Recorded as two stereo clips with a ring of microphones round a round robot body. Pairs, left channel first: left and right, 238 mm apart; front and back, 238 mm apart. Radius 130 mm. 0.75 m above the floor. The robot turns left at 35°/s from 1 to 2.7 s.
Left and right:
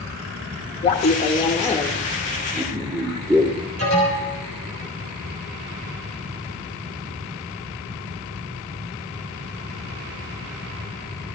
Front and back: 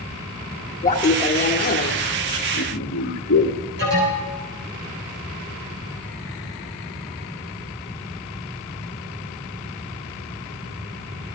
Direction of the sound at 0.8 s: 40° left.